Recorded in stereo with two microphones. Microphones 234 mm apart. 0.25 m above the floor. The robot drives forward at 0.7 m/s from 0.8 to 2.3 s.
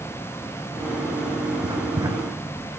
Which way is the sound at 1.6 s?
20° right (ahead or behind).